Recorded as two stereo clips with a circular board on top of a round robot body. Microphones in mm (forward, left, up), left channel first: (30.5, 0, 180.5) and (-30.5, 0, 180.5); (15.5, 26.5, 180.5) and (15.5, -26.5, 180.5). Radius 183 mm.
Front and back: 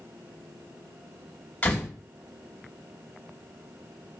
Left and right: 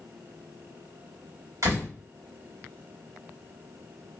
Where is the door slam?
65° right, 1.9 m.